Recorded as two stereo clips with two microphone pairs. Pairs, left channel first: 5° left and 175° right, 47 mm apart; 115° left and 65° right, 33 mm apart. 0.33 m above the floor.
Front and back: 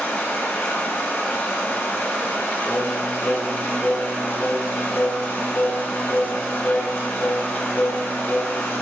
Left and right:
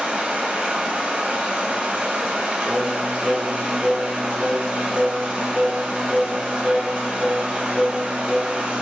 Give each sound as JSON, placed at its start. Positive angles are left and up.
{"t": 0.0, "sound": "running water", "azimuth_deg": -20, "distance_m": 0.8}
{"t": 2.6, "sound": "singing", "azimuth_deg": 25, "distance_m": 0.6}